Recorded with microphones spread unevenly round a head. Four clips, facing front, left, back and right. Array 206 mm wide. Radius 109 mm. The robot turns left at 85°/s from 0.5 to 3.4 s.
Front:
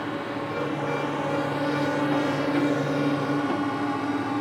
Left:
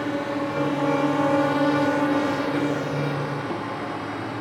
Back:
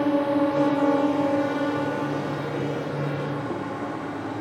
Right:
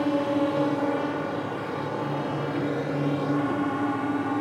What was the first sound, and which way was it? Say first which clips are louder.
A drone: right 2 dB, back 9 dB; 165° right.